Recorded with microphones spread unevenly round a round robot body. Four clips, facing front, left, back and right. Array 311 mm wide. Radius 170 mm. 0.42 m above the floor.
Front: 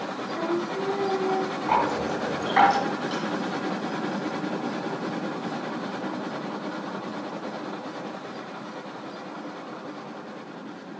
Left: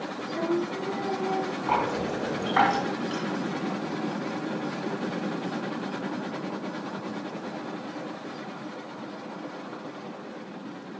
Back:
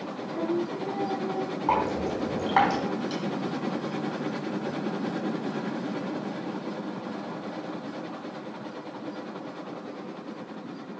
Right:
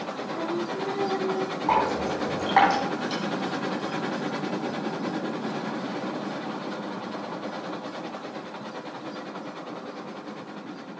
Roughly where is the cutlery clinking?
Behind.